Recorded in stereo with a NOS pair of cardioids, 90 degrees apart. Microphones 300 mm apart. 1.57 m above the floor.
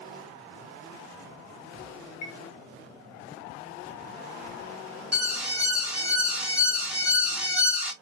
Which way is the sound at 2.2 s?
65° left.